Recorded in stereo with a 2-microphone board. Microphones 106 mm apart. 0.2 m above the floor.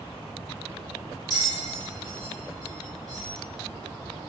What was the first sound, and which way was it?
A bell, 45° left (ahead or behind).